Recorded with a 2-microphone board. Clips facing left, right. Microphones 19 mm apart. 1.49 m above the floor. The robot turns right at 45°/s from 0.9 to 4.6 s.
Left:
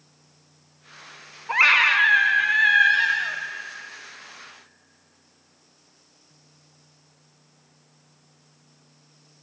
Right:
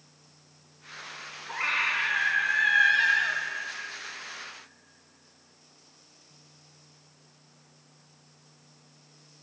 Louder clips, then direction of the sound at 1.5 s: Left 11 dB; 100° left.